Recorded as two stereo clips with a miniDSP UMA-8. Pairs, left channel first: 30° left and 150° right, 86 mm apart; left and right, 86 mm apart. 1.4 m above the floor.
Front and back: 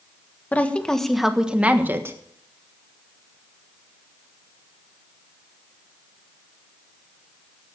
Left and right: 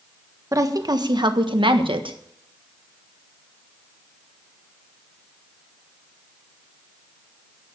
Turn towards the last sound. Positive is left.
turn(degrees=-90)